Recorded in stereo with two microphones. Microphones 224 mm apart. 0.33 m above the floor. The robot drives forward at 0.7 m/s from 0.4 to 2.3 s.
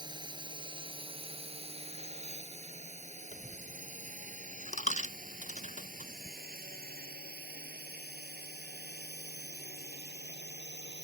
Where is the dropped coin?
35° left (ahead or behind).